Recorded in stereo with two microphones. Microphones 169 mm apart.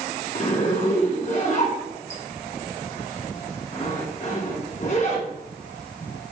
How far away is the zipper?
About 1.1 m.